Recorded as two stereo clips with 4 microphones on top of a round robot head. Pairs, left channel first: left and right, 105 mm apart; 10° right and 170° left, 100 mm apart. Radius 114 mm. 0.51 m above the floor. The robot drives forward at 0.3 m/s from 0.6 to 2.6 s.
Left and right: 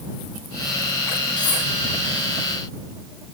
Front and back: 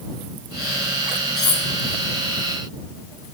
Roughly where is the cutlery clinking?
Ahead left.